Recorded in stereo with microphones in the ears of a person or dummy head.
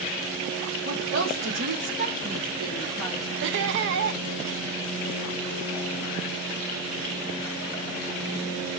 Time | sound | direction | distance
0.8 | a woman speaking | 70° right (ahead or behind) | 3.5 m
3.4 | laughter | 60° right (ahead or behind) | 0.9 m